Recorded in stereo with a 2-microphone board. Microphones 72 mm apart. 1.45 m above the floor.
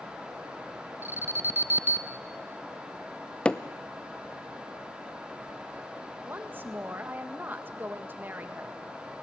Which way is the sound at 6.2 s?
30° right (ahead or behind).